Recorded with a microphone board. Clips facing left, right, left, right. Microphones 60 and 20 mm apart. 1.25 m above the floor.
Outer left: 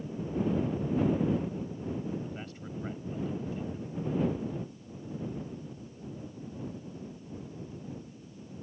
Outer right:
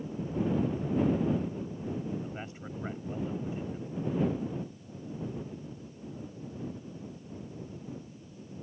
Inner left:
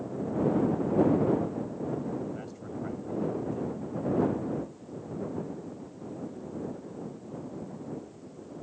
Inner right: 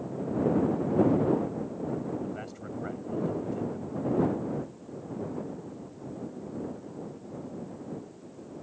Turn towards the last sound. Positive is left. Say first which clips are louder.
# even, inner right 1 dB
turn(degrees=-20)  # may be behind; listen again after turning